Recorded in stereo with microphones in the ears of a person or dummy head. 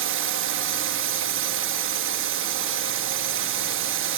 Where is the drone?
65° right (ahead or behind).